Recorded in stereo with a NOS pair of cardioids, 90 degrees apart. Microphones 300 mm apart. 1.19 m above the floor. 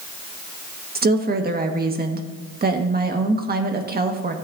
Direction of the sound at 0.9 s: 30° right.